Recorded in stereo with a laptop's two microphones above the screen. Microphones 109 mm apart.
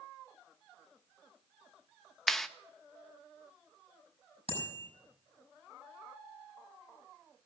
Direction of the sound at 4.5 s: 65° left (ahead or behind).